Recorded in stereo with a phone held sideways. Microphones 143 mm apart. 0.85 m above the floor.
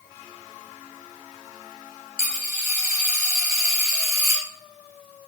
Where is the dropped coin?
75° right (ahead or behind), 2 m.